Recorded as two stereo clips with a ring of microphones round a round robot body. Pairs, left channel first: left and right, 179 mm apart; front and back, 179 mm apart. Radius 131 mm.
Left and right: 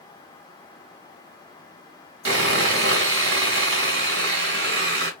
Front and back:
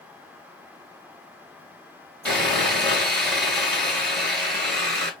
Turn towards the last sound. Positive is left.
turn(degrees=-85)